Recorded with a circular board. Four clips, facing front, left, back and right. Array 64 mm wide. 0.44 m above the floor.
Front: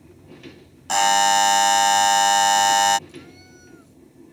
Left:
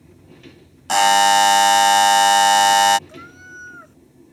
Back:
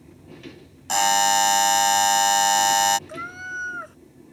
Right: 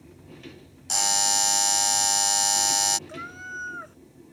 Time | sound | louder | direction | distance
0.9 | a buzzer | left 16 dB, front 2 dB | 80° left | ?
3.1 | a cat meowing | right 2 dB, back 11 dB | 170° right | ?